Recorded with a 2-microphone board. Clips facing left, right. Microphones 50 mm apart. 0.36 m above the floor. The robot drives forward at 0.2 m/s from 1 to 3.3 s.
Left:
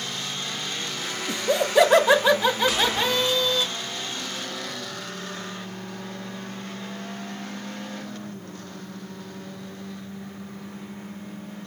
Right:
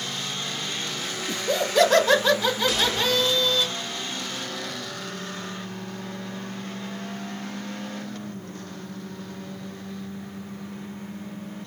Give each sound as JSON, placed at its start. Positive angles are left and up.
{"t": 1.3, "sound": "laughter", "side_deg": 15, "distance_m": 0.8}
{"t": 2.7, "sound": "a gunshot", "side_deg": 10, "distance_m": 2.0}